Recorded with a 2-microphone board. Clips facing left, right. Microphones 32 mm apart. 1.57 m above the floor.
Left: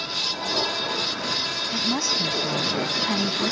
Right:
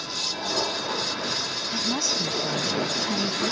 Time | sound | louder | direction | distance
1.7 | a woman speaking | left 1 dB | 5° left (ahead or behind) | ?